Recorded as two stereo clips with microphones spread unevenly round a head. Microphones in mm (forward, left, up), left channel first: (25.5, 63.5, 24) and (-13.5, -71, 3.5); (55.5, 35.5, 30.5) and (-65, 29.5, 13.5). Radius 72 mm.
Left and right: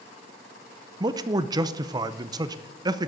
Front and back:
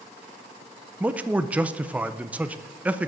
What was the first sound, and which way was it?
A man speaking, 120° right.